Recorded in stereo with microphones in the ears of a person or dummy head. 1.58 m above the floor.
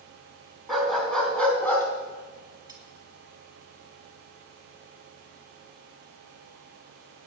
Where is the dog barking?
Centre (ahead or behind), 4 m; by 1.9 s 10° left (ahead or behind), 3.5 m.